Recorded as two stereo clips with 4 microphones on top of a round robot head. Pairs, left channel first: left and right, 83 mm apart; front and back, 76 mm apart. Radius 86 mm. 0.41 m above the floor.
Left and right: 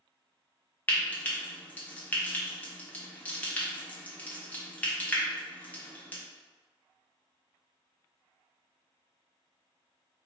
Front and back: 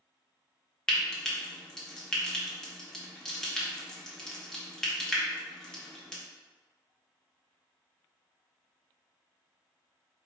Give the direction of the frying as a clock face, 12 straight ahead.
10 o'clock.